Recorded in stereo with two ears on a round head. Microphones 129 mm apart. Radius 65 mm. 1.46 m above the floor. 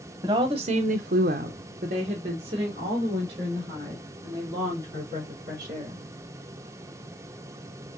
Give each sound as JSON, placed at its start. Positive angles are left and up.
{"t": 0.2, "sound": "a woman speaking", "side_deg": -25, "distance_m": 0.8}